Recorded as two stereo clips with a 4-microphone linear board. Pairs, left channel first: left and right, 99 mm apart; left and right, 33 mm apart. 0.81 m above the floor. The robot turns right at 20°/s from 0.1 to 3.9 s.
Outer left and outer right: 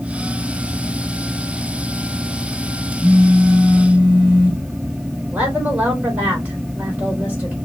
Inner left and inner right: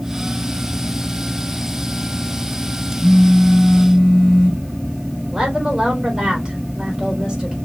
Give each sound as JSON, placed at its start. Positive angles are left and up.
{"t": 3.0, "sound": "a phone buzzing", "side_deg": -30, "distance_m": 3.0}
{"t": 5.3, "sound": "a woman speaking", "side_deg": -15, "distance_m": 3.5}